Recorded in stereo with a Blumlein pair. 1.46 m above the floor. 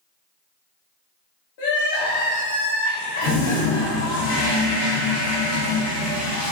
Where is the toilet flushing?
50° left, 0.9 m.